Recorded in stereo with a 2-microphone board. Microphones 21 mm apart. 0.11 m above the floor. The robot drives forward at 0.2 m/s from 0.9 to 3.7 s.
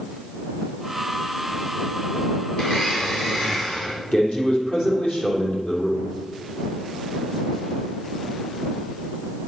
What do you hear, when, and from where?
2.6 s a blender: 55° left (ahead or behind), 5 m; by 4.0 s 60° left (ahead or behind), 5 m
4.1 s a man speaking: 60° left (ahead or behind), 3.5 m